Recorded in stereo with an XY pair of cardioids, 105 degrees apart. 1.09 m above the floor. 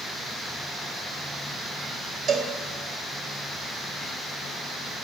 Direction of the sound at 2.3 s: 65° right.